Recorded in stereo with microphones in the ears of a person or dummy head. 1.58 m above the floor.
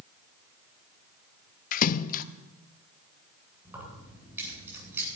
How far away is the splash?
About 0.7 m.